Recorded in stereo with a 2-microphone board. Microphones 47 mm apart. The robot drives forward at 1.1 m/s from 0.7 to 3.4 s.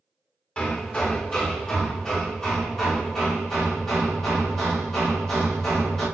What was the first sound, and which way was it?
Hammering, 30° left (ahead or behind).